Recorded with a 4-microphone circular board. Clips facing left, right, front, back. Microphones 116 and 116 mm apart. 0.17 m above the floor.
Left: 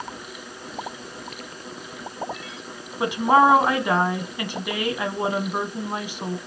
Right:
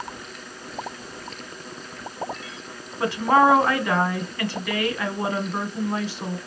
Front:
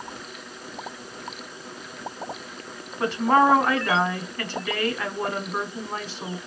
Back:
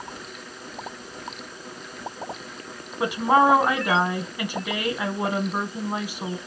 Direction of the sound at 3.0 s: 130° left.